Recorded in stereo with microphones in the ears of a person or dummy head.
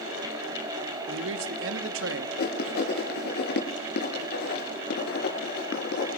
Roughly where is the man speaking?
Right.